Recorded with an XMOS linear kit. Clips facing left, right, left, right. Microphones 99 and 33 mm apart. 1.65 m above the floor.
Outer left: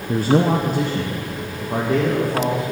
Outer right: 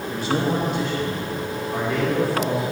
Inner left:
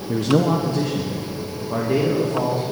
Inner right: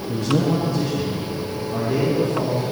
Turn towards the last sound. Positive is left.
turn(degrees=45)  # may be behind; listen again after turning